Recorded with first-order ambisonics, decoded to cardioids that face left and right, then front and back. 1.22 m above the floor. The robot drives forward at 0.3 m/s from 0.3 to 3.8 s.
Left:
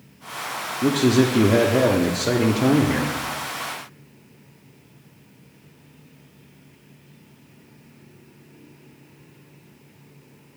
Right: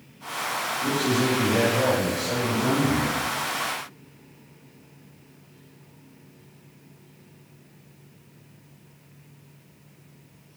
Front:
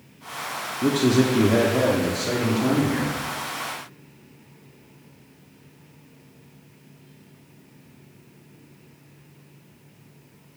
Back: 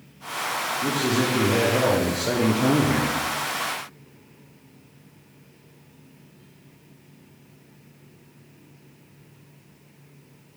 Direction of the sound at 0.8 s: 55° left.